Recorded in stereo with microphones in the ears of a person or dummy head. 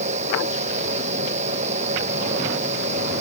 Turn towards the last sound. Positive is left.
turn(degrees=-35)  # may be behind; listen again after turning